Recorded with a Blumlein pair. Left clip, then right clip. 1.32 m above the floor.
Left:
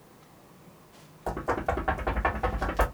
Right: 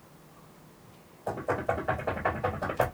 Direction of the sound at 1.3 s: 55° left.